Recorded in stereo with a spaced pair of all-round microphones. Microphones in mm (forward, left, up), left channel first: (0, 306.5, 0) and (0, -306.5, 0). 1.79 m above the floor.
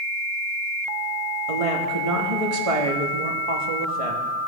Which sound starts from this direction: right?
A woman speaking, at 1.5 s.